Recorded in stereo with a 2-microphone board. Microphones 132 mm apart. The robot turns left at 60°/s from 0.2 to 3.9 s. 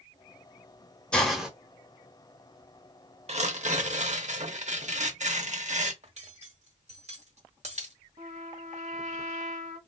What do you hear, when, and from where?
1.1 s a hiss: 5° left (ahead or behind), 0.8 m; by 1.5 s 5° right (ahead or behind), 0.8 m
3.3 s tearing paper: 65° right, 0.8 m; by 5.9 s 100° right, 0.8 m
6.0 s cutlery clinking: 55° right (ahead or behind), 1.1 m
8.2 s a trumpet: 60° right (ahead or behind), 1.1 m